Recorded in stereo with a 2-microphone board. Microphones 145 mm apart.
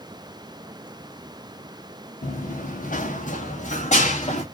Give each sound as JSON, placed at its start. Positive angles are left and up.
{"t": 2.2, "sound": "running footsteps", "side_deg": 75, "distance_m": 1.0}